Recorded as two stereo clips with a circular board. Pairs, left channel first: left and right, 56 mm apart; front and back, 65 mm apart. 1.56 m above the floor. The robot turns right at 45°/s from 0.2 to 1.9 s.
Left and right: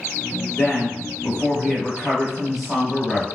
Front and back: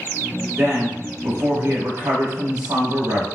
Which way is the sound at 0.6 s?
125° left.